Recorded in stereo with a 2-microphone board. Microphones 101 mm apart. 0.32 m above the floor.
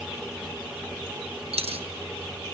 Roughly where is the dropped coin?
Right.